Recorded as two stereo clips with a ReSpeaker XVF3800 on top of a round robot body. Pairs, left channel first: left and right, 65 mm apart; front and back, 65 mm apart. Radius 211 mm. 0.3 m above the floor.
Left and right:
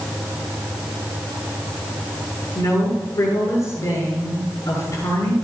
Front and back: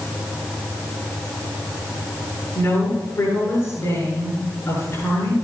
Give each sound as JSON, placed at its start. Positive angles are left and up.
{"t": 2.5, "sound": "a woman speaking", "azimuth_deg": 50, "distance_m": 6.5}